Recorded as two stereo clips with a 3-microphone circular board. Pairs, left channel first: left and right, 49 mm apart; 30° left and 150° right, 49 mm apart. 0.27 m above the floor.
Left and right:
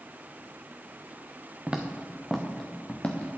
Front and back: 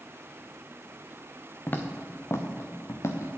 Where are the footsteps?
20° right, 1.1 m; by 3.3 s 35° left, 1.5 m.